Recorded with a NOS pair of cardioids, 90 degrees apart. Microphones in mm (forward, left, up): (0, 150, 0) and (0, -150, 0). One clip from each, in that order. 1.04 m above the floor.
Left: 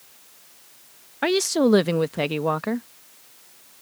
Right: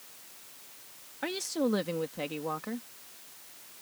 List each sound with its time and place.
1.2 s a woman speaking: 65° left